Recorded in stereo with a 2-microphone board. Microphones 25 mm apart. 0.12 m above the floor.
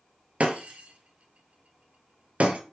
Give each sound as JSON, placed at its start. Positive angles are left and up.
{"t": 0.4, "sound": "breaking glass", "side_deg": -60, "distance_m": 0.6}